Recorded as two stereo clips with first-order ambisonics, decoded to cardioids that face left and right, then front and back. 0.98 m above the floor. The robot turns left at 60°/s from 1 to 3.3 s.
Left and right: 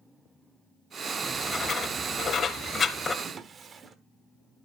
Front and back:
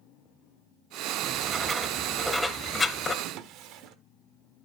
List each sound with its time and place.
1.2 s writing: 155° left, 0.8 m; by 3.1 s 40° left, 0.8 m
3.2 s a drawer: 150° right, 1.0 m; by 4.0 s 155° right, 1.0 m